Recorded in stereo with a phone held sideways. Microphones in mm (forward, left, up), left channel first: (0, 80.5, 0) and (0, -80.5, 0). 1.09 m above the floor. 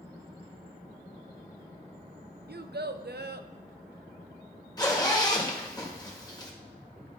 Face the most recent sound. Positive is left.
turn(degrees=25)  # may be behind; listen again after turning